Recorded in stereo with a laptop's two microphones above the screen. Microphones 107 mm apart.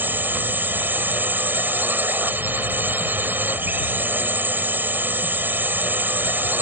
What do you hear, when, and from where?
0.0 s a drone: 20° right (ahead or behind)